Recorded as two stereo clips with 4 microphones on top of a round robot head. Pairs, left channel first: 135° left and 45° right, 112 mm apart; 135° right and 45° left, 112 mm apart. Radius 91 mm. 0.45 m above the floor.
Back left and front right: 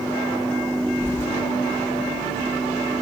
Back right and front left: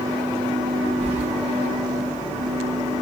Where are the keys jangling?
65° left, 2.5 m.